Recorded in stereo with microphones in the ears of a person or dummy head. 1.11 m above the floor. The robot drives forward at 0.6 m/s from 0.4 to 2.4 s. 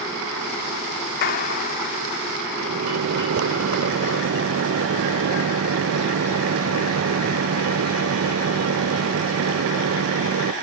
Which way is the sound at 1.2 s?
50° left (ahead or behind).